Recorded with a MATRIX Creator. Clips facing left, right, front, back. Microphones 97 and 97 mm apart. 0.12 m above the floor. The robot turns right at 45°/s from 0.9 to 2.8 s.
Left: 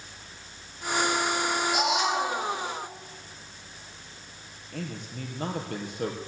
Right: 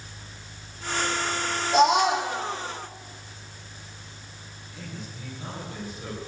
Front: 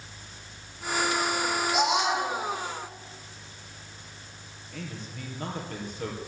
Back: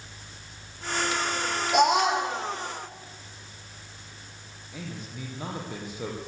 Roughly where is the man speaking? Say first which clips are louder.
Left 4 dB, back 1 dB; left.